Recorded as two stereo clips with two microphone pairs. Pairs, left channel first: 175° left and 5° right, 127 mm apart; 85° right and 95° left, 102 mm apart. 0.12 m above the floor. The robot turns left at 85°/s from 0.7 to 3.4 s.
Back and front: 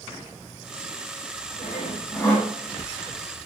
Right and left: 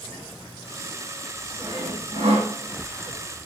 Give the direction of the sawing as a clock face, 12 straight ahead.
7 o'clock.